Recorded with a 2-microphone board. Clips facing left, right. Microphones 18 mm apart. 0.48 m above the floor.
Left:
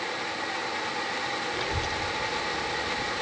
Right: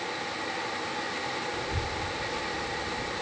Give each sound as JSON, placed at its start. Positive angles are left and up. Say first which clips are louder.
{"t": 1.5, "sound": "a child speaking", "louder": "left 3 dB", "side_deg": 55, "distance_m": 1.2}